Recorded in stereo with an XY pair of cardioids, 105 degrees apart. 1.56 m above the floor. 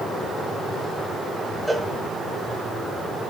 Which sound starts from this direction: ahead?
A cowbell, at 1.7 s.